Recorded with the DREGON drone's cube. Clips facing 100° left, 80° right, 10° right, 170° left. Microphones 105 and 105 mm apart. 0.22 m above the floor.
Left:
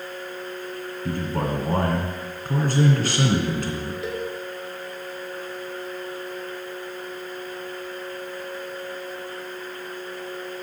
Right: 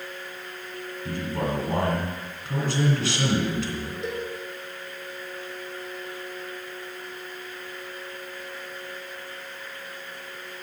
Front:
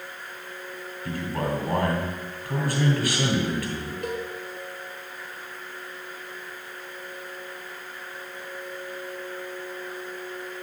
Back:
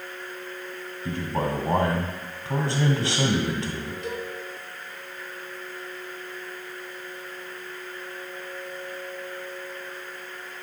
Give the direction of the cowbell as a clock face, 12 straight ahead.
12 o'clock.